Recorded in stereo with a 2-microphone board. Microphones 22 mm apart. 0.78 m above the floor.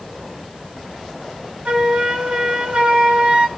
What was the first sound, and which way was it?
A flute, 60° right (ahead or behind).